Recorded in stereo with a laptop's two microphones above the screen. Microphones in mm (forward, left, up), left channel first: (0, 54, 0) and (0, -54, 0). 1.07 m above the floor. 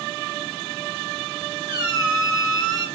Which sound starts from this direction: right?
A squeak, at 1.7 s.